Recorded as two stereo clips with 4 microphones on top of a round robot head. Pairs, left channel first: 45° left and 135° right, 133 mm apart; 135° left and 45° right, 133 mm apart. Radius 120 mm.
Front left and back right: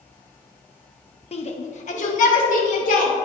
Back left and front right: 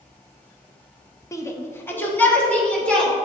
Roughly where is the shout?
Left.